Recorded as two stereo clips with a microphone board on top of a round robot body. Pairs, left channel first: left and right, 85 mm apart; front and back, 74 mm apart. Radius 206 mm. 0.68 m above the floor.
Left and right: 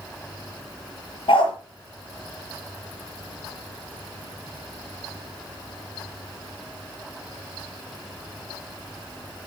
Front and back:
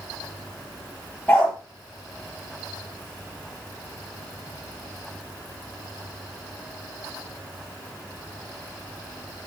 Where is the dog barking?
65° left, 8 m.